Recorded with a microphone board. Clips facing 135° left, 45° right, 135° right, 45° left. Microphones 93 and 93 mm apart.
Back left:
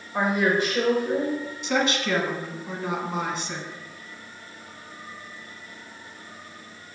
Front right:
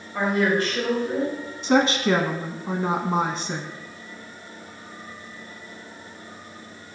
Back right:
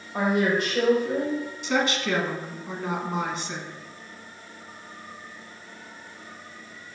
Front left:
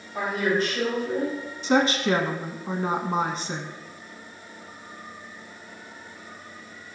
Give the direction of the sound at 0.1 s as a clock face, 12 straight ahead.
5 o'clock.